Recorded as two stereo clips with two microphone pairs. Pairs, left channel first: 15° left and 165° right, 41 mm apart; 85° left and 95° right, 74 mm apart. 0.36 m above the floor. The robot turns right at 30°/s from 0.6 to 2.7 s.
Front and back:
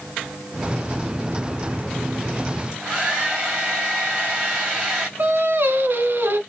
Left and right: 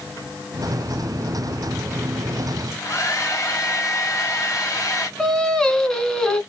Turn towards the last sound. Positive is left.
turn(degrees=165)